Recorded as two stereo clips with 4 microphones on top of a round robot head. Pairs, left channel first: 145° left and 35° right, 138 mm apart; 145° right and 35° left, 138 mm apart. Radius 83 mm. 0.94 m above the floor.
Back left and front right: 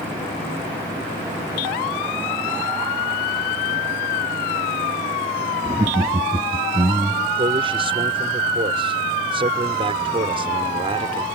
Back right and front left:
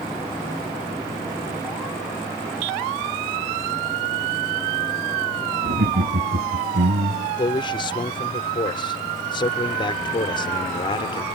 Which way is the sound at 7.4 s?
90° right.